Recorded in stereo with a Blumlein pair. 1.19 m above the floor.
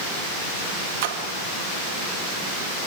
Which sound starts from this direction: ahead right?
A splash, at 1.0 s.